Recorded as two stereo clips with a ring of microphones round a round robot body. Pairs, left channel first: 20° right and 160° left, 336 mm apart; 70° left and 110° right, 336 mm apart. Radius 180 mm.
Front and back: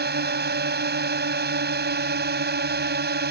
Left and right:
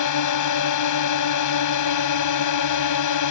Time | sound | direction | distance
0.0 | a drone | 100° left | ?